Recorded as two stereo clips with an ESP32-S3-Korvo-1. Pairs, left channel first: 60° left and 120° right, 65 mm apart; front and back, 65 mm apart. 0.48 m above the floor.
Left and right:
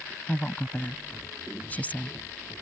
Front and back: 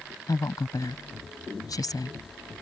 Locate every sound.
0.3 s a woman speaking: 5° right